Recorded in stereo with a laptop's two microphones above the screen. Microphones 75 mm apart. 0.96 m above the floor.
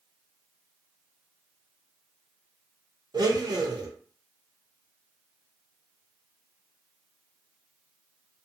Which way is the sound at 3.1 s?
65° right (ahead or behind).